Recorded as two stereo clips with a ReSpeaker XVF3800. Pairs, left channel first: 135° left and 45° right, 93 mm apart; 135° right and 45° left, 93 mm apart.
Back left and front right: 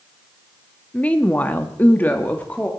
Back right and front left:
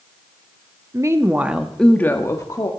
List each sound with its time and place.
0.9 s a woman speaking: 65° left, 1.3 m; by 2.7 s 155° right, 1.5 m